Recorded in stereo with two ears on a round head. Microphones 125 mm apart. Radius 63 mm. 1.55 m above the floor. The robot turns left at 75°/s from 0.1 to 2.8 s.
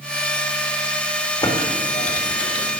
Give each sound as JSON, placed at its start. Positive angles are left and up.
{"t": 1.4, "sound": "typing on a keyboard", "side_deg": 30, "distance_m": 1.6}